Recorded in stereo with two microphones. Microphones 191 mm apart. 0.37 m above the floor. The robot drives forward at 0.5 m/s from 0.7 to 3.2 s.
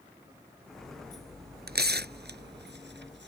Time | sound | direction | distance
1.7 | tearing paper | 55° right (ahead or behind) | ?